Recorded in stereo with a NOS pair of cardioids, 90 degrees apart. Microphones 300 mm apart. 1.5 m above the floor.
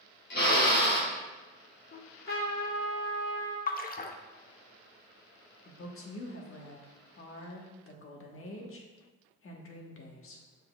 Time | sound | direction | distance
0.3 | a drill | 40° left | 2.5 m
1.9 | a trumpet | 45° left | 2.5 m
3.7 | a splash | 30° left | 0.7 m
5.7 | a woman speaking | 45° left | 1.5 m